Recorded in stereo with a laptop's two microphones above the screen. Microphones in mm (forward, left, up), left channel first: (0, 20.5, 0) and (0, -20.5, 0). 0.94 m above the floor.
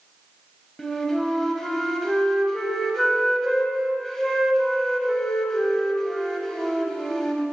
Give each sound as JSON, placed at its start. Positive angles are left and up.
{"t": 0.8, "sound": "a flute", "side_deg": 10, "distance_m": 2.0}